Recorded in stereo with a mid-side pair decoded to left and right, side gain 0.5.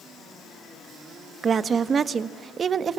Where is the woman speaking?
40° right, 1.5 m.